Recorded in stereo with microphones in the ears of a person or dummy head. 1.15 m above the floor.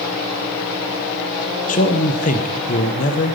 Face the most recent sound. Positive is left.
turn(degrees=40)  # may be behind; listen again after turning